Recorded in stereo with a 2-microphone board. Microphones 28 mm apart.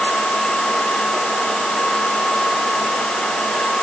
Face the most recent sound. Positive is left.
No sound to turn to.